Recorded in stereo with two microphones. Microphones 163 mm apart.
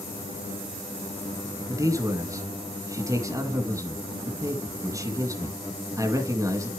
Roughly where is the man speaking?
Right.